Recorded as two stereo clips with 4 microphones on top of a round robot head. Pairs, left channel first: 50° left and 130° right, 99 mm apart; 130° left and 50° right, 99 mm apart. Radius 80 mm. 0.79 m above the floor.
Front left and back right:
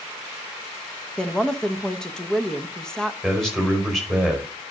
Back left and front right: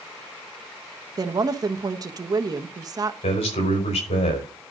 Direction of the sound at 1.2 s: 30° right.